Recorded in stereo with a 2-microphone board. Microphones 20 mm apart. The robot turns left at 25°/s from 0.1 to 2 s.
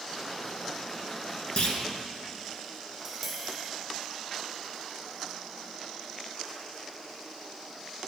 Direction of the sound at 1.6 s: 65° left (ahead or behind).